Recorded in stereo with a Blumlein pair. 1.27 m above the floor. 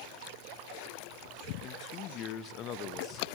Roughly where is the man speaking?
Ahead left.